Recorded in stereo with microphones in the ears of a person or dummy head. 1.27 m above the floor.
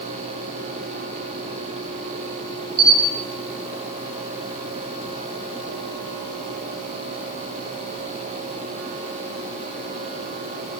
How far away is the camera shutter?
About 5 m.